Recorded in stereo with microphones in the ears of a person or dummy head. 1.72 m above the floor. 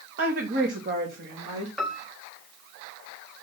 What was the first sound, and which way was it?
A woman speaking, 45° right (ahead or behind).